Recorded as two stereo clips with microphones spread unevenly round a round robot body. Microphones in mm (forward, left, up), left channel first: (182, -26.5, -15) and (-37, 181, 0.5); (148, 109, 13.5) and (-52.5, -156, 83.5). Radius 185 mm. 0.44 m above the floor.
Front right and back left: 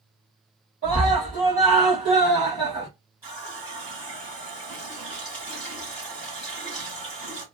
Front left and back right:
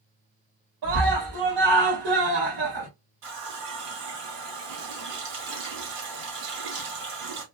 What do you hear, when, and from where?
0.8 s a scream: 160° right, 2.5 m
3.2 s a running tap: 145° right, 1.9 m